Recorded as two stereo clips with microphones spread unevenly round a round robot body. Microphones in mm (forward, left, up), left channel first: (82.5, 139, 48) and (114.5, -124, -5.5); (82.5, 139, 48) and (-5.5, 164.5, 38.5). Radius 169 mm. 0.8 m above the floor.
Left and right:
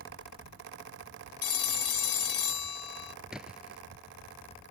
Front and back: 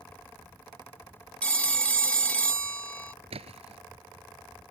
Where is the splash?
170° right.